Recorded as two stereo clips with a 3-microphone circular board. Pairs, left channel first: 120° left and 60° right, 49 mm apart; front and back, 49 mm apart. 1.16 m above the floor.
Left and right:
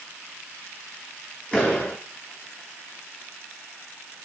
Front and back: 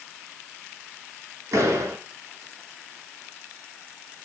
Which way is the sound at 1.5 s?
170° right.